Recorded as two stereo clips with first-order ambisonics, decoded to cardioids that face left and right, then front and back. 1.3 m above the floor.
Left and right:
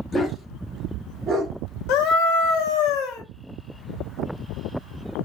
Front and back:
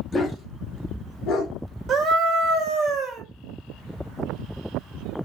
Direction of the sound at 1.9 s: 120° left.